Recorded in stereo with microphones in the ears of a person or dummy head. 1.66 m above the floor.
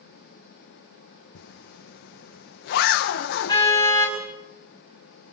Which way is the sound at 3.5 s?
15° left (ahead or behind).